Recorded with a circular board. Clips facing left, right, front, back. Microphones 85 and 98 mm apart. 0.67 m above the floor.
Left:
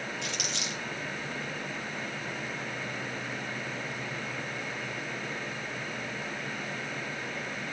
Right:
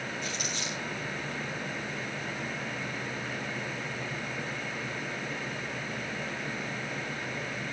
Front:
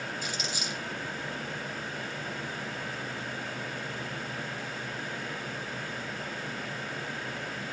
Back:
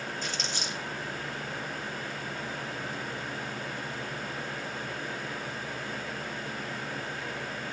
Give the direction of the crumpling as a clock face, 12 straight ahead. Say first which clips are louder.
Even, even; 9 o'clock.